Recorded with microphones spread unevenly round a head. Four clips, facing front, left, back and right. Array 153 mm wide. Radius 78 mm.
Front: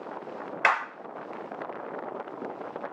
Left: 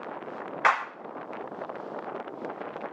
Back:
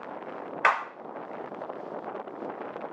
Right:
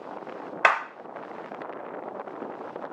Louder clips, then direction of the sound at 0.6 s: Right 1 dB, back 1 dB; 105° right.